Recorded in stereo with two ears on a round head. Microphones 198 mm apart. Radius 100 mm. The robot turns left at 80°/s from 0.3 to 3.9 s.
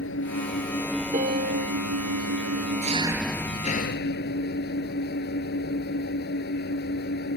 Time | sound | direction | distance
0.0 | an engine running | 55° left | ?
1.1 | a piano | 40° right | ?